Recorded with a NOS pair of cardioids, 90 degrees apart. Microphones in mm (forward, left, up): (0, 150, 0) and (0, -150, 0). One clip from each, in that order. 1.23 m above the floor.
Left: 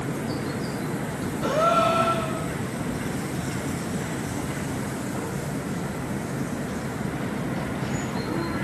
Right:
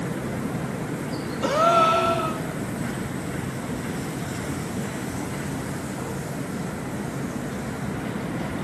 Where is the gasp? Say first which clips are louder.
Right 2 dB; 50° right, 2.5 m.